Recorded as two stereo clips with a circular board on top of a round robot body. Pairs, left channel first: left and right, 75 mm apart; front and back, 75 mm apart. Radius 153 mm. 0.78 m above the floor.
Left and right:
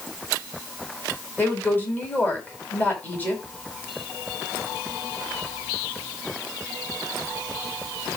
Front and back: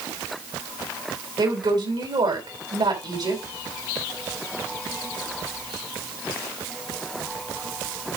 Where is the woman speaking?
155° left, 5.5 m.